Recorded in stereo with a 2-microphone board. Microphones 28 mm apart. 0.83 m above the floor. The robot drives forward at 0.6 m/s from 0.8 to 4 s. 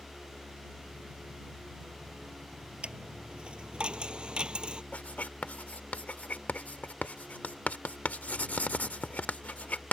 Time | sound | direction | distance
2.8 | a dropped coin | 40° right (ahead or behind) | ?
4.9 | writing | 60° left (ahead or behind) | ?